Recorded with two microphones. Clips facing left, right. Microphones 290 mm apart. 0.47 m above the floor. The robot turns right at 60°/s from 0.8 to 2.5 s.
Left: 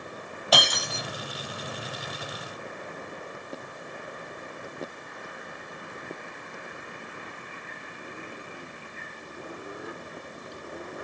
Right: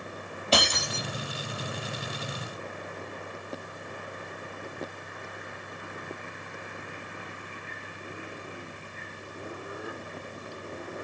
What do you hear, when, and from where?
0.5 s breaking glass: 30° right (ahead or behind), 3 m; by 1.0 s 15° right (ahead or behind), 3 m